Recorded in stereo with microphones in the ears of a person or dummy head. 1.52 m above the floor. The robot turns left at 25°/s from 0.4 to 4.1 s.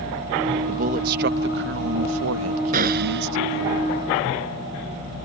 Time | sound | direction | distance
0.7 | a man speaking | 35° right | ?
2.7 | a gunshot | 35° right (ahead or behind) | ?